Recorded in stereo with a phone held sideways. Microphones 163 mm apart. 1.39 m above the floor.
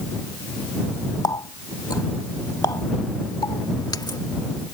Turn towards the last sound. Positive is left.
turn(degrees=25)  # may be behind; listen again after turning